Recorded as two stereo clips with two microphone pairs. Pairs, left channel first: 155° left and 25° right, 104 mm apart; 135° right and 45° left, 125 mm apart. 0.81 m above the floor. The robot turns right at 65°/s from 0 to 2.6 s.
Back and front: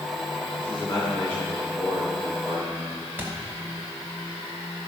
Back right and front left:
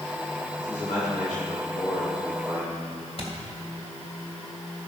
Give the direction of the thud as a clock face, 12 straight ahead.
3 o'clock.